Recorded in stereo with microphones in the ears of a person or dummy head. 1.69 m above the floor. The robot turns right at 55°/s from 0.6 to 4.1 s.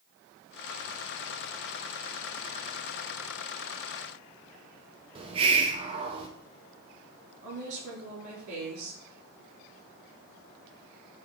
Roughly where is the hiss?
Right.